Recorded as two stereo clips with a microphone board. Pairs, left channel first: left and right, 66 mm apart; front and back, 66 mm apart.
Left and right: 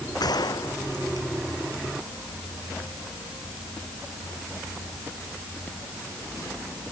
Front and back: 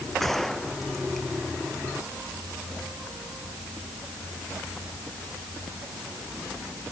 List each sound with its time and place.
0.2 s a gunshot: 85° left